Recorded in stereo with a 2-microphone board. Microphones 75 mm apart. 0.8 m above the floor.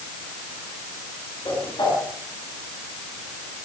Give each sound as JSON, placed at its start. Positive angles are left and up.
{"t": 1.4, "sound": "a whoosh", "side_deg": 85, "distance_m": 7.0}